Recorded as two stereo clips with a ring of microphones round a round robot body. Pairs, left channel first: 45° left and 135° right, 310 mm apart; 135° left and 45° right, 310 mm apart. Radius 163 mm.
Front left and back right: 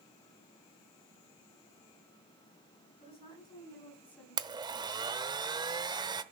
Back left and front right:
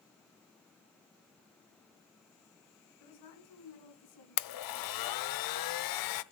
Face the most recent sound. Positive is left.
turn(degrees=150)